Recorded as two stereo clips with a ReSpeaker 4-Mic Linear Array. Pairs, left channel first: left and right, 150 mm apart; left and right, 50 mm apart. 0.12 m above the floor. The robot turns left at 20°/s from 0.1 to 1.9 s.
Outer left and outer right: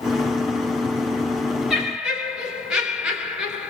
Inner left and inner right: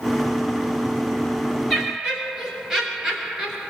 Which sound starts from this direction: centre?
Laughter, at 1.7 s.